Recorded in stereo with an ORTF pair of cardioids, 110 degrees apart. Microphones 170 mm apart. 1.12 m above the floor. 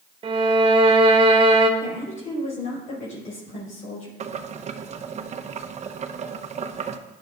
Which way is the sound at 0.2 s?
35° right.